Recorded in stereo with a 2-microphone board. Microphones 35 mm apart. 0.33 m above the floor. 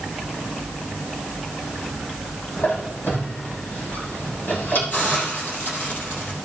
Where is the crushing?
I don't hear crushing.